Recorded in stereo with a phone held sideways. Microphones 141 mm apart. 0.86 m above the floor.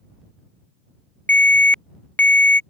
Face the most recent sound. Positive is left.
turn(degrees=10)  # may be behind; listen again after turning